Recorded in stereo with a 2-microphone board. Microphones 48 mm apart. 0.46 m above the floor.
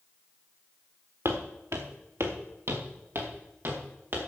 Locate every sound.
1.2 s footsteps: 75° right (ahead or behind), 2 m; by 4.2 s 55° right (ahead or behind), 4 m